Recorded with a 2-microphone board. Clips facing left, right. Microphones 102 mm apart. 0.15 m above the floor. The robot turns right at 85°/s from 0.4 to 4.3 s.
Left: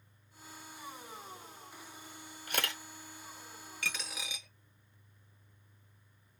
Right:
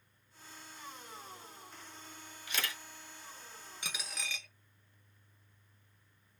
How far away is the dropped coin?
About 0.7 m.